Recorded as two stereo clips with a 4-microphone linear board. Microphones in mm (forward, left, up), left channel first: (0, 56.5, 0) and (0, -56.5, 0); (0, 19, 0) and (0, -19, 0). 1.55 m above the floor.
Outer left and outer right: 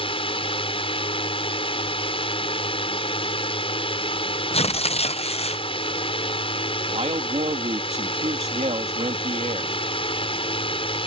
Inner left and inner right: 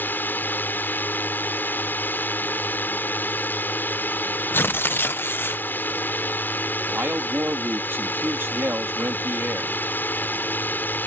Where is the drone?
55° left (ahead or behind).